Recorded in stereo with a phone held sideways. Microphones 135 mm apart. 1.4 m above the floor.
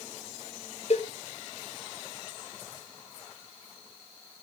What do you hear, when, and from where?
0.9 s a cowbell: 50° left (ahead or behind), 0.6 m